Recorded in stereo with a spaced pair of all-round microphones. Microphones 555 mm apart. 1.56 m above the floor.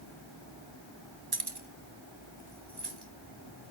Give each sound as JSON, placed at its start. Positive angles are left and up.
{"t": 1.3, "sound": "keys jangling", "side_deg": -40, "distance_m": 1.0}